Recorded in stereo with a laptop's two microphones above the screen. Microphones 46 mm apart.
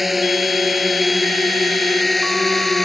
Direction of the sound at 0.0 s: 5° right (ahead or behind).